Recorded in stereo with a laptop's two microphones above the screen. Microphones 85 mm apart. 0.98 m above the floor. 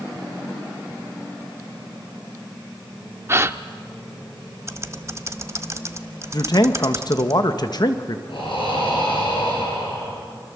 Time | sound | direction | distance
3.3 | a gasp | 30° right (ahead or behind) | 0.6 m
4.7 | typing on a keyboard | 35° right (ahead or behind) | 1.1 m
6.3 | a man speaking | 55° left (ahead or behind) | 1.3 m
8.3 | breathing | 80° left | 7.5 m